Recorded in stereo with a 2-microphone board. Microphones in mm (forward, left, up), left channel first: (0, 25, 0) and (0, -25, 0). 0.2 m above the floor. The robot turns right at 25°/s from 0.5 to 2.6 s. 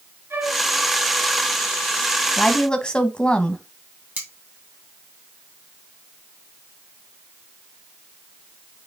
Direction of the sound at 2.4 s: 15° left (ahead or behind).